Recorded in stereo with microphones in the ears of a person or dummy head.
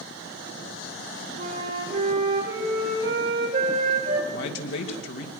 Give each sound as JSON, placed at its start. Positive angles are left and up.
{"t": 1.4, "sound": "a flute", "side_deg": -60, "distance_m": 5.5}
{"t": 4.3, "sound": "a man speaking", "side_deg": 60, "distance_m": 2.5}